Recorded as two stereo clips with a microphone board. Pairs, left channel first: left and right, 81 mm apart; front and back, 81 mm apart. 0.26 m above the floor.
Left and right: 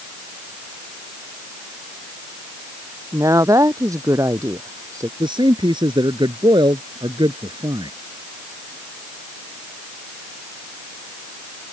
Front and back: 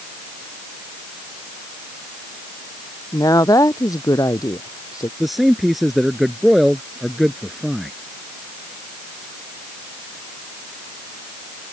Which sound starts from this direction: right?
A man speaking, at 5.2 s.